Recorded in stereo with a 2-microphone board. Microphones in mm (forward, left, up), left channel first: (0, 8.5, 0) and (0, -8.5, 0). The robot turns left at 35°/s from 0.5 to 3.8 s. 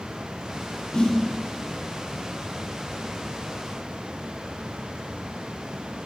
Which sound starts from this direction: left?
A snare drum, at 0.9 s.